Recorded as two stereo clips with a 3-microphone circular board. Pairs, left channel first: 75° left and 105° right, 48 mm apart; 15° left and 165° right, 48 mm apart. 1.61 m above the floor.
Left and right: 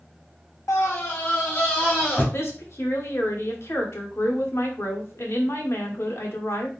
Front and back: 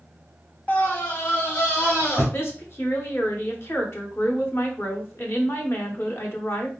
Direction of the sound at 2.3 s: 50° left.